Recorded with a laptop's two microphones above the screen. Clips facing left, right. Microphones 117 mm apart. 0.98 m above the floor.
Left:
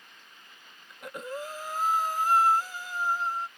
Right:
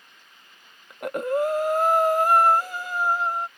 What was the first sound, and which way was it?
Breathing, 60° right (ahead or behind).